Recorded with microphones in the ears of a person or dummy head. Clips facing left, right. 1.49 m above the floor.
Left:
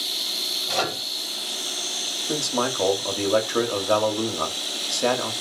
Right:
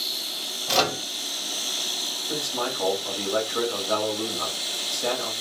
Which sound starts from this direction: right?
A microwave, at 0.7 s.